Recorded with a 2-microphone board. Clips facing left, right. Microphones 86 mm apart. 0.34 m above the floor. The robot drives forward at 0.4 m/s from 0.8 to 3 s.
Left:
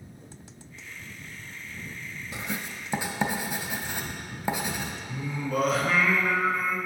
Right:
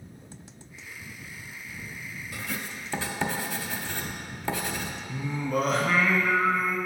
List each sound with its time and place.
2.3 s writing: 25° left (ahead or behind), 0.5 m; by 4.9 s 15° left (ahead or behind), 0.8 m
5.1 s singing: centre (ahead or behind), 1.1 m